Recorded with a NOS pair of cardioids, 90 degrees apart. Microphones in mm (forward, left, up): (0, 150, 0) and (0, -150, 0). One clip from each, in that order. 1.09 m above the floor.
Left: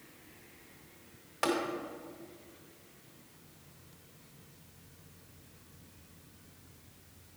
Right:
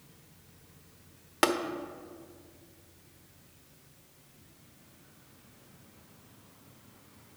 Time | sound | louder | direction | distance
1.4 | tapping | right 5 dB | 70° right | 1.1 m